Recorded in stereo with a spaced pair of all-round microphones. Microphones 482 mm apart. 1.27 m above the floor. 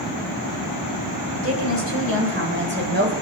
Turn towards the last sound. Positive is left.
turn(degrees=-20)  # may be behind; listen again after turning